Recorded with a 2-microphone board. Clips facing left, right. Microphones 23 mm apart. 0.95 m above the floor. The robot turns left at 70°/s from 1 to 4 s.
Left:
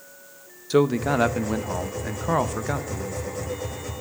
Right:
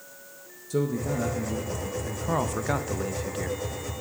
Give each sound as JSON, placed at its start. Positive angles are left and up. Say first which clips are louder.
{"t": 0.7, "sound": "a man speaking", "louder": "left 7 dB", "azimuth_deg": 120, "distance_m": 0.5}